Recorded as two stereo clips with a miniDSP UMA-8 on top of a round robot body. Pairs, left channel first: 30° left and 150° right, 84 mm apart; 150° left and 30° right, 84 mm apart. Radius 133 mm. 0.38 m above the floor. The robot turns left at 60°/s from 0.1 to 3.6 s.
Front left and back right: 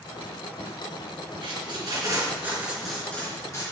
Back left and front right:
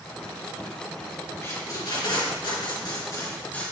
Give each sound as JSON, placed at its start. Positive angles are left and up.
{"t": 1.4, "sound": "tape being pulled", "azimuth_deg": -150, "distance_m": 3.5}